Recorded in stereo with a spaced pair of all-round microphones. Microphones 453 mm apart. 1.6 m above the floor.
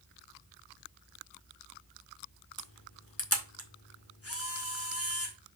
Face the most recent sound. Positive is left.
turn(degrees=30)  # may be behind; listen again after turning